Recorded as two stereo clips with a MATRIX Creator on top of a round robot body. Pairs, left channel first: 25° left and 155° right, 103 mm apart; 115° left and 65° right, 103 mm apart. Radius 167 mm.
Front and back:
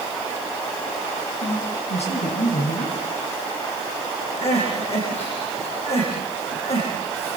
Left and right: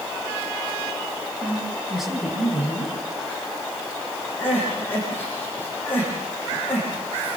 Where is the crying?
40° left, 9.5 m.